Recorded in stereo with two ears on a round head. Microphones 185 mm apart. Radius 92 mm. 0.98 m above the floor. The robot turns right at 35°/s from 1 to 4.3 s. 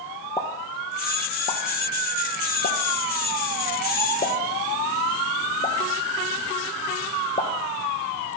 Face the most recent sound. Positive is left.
turn(degrees=25)  # may be behind; listen again after turning